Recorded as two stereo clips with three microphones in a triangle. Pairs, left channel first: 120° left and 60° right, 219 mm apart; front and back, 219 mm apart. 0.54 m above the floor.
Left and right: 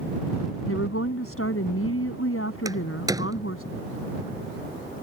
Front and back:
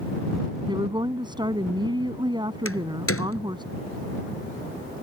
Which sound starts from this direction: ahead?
A door slam, at 2.6 s.